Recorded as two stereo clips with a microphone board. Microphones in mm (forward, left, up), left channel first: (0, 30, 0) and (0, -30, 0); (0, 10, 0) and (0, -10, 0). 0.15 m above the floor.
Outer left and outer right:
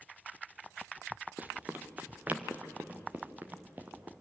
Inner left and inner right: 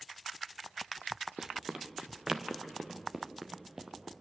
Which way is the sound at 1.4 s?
30° right (ahead or behind).